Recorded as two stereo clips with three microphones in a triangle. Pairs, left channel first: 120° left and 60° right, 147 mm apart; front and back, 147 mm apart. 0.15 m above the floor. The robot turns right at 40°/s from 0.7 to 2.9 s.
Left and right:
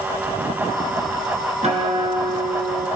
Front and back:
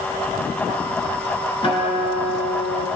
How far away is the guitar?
About 1.4 m.